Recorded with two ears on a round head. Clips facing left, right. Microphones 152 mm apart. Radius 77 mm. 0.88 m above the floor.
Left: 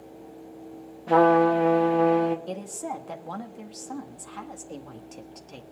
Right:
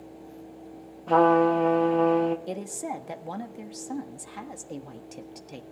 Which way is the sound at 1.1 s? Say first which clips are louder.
Left 1 dB; 5° left (ahead or behind).